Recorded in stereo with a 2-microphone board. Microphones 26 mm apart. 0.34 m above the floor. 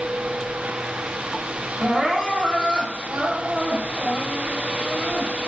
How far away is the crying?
About 1.2 m.